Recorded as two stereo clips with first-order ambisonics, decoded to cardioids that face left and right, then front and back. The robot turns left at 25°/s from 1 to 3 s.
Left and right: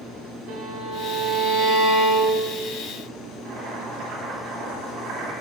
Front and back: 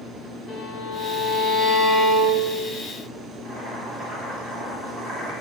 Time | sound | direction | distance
0.5 | a violin | 70° right | 2 m
3.5 | boiling | 125° right | 2 m